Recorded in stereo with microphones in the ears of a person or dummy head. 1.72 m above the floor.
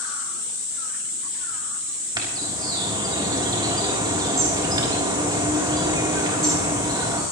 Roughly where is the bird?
Right.